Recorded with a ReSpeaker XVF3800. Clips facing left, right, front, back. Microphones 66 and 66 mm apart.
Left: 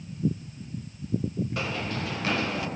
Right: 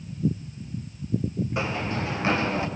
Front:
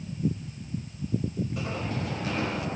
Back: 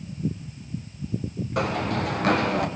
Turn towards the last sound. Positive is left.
turn(degrees=-150)